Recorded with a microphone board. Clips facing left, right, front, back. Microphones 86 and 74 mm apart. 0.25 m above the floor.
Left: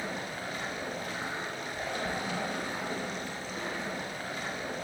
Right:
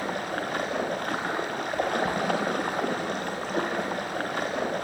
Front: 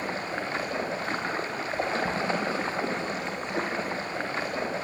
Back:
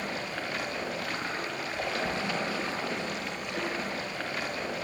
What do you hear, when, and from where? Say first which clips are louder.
0.0 s running water: right 7 dB, front 3 dB; 60° right, 5.5 m